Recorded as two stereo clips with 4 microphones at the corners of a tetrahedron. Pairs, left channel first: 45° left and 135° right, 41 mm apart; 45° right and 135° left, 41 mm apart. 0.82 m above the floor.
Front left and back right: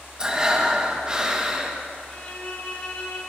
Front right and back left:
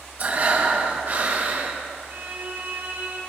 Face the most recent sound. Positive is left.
turn(degrees=100)